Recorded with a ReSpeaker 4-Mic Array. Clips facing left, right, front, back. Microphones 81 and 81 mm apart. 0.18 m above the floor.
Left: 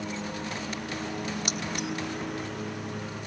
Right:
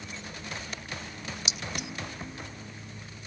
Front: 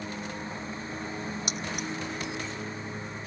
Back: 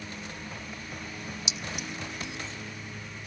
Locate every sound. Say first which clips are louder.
0.0 s a lawn mower: left 8 dB, front 4 dB; 65° left
1.5 s keys jangling: left 6 dB, front 4 dB; 45° left